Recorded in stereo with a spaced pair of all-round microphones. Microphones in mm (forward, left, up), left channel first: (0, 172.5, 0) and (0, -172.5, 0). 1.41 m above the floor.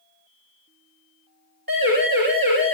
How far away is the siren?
About 10 m.